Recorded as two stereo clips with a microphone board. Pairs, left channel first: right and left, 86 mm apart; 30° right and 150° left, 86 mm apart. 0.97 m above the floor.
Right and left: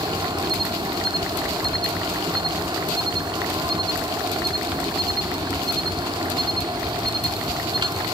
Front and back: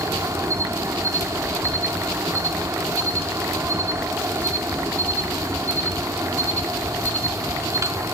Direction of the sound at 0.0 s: 100° left.